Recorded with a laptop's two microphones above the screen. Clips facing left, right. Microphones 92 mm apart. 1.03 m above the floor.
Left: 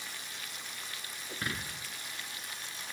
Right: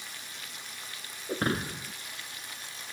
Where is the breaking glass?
45° right (ahead or behind).